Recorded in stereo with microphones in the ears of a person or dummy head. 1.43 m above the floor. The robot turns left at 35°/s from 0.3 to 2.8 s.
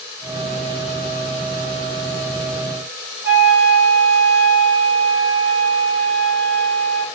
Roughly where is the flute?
Centre.